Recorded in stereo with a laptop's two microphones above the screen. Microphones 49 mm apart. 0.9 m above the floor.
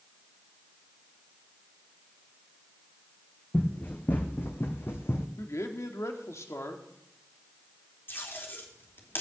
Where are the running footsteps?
35° left (ahead or behind), 3 m; by 5.3 s 60° left (ahead or behind), 2 m.